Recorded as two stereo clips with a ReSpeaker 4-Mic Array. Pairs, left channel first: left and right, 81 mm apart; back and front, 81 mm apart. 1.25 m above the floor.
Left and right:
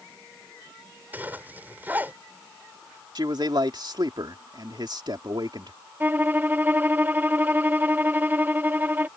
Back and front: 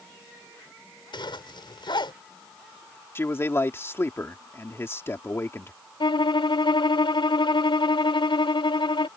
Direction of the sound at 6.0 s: 155° right.